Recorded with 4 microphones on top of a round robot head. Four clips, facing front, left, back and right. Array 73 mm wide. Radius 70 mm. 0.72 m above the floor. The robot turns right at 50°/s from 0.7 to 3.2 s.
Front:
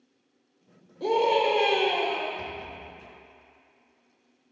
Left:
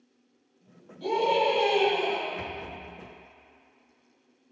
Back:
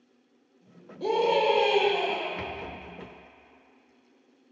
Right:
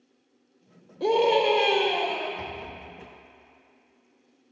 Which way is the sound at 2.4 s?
170° left.